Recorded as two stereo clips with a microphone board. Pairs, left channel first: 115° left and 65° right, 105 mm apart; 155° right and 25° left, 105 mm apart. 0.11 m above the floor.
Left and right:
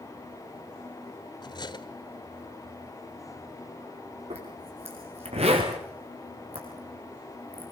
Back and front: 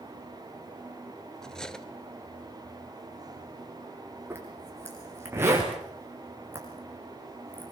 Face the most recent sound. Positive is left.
turn(degrees=-45)